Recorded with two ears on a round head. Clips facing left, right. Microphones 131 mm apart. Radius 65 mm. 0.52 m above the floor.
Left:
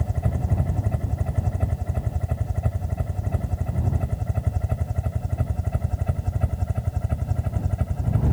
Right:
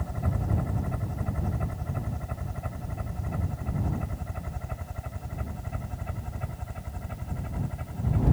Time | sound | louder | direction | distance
0.0 | a helicopter | left 4 dB | 30° left (ahead or behind) | ?